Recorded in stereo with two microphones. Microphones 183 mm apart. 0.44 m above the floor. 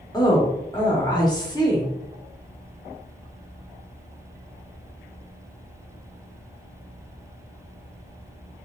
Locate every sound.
0.1 s a woman speaking: 20° left (ahead or behind), 0.9 m